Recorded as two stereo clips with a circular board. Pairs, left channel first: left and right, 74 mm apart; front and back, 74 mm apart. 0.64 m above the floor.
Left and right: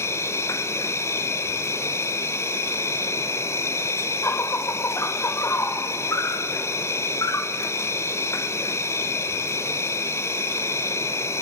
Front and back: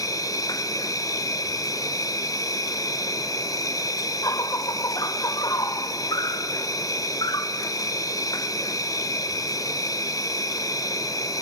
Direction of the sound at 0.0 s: 40° left.